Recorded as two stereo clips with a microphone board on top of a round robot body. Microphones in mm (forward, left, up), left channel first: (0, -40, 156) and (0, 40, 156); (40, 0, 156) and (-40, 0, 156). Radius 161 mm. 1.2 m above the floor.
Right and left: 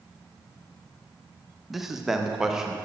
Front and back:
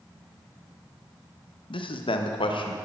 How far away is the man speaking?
About 1.4 m.